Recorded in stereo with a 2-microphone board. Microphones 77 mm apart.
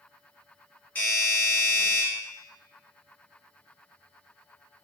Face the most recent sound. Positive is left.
turn(degrees=20)  # may be behind; listen again after turning